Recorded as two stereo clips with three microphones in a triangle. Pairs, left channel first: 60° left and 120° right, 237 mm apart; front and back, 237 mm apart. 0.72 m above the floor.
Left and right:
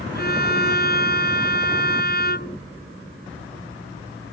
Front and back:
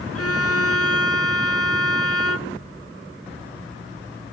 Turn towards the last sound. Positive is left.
turn(degrees=10)